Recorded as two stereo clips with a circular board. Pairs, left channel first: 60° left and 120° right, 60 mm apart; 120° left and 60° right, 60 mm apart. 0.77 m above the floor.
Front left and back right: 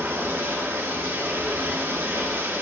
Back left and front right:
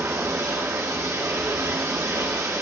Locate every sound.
0.0 s running water: 80° right, 1.5 m